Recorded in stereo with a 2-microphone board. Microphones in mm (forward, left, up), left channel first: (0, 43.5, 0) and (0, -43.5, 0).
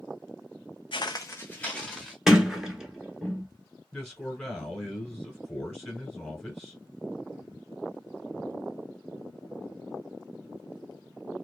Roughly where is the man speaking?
Centre.